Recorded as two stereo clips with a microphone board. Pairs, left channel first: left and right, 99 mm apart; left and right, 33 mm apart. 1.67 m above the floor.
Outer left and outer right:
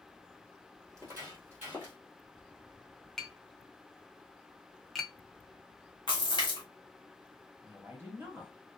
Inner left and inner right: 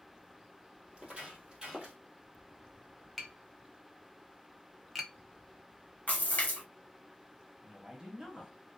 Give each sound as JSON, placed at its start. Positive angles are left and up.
{"t": 0.9, "sound": "footsteps", "side_deg": -30, "distance_m": 1.8}
{"t": 3.2, "sound": "tapping", "side_deg": 5, "distance_m": 0.6}
{"t": 6.1, "sound": "a splash", "side_deg": 55, "distance_m": 1.3}
{"t": 7.6, "sound": "a woman speaking", "side_deg": -20, "distance_m": 1.4}